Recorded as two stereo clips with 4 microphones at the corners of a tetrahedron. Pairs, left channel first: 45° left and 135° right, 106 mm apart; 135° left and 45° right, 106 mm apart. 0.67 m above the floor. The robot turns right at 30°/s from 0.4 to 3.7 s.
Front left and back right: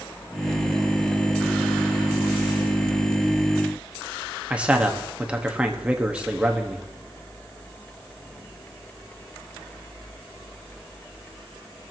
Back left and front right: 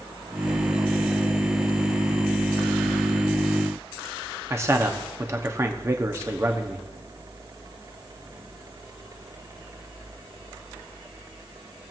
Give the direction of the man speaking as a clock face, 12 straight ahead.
2 o'clock.